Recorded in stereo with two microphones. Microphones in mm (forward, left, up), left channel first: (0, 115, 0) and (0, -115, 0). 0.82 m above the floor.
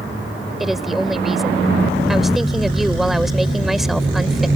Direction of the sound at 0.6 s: Centre (ahead or behind).